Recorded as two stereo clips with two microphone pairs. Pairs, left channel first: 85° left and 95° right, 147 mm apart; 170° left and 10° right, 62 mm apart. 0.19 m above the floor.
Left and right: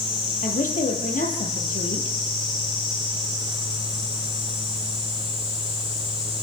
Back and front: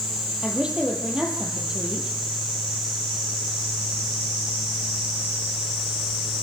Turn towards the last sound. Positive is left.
turn(degrees=65)